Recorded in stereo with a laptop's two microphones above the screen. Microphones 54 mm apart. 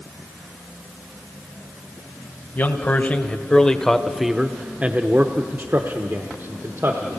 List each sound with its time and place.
2.5 s a man speaking: 35° left (ahead or behind), 1.2 m; by 7.2 s 55° right (ahead or behind), 1.6 m